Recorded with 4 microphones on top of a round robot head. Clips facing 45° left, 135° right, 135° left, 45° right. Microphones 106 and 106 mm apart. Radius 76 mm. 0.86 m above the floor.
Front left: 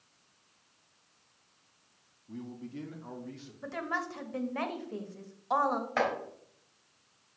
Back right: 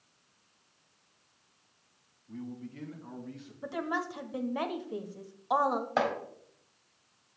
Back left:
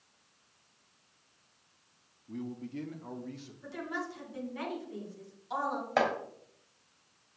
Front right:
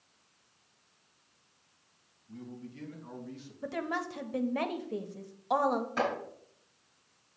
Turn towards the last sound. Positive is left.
turn(degrees=155)